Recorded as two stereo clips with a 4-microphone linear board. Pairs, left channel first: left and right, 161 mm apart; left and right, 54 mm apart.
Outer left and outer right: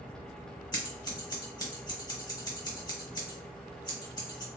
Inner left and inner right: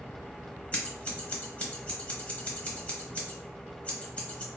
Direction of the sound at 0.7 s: 25° left (ahead or behind).